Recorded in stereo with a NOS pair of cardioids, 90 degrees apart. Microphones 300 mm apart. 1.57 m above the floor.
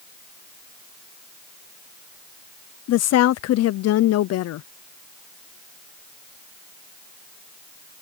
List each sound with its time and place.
2.9 s a woman speaking: 60° left